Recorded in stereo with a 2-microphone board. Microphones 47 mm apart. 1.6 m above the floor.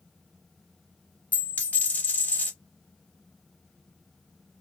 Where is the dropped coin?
35° left (ahead or behind), 2.5 m.